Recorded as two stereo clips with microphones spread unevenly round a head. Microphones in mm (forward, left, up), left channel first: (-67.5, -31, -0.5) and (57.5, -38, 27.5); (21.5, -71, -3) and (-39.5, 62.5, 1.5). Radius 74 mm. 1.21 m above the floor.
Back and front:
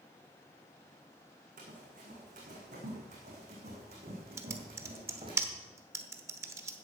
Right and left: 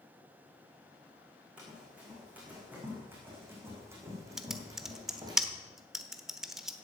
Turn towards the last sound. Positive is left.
turn(degrees=30)